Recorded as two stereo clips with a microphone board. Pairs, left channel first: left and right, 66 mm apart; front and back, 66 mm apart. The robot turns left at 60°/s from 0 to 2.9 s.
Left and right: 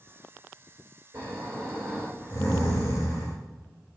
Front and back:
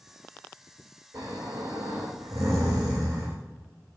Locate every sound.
1.1 s snoring: 145° right, 3.5 m; by 3.3 s 110° left, 3.5 m